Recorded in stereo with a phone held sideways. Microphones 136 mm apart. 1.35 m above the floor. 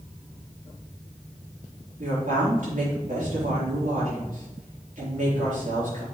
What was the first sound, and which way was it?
A woman speaking, 75° right (ahead or behind).